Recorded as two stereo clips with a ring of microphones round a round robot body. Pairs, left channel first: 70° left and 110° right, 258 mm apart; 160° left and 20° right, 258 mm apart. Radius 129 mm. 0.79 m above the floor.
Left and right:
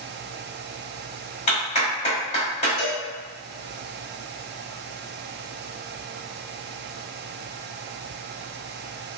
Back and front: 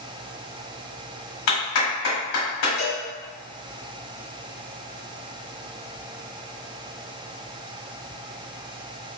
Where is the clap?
130° left, 1.6 m.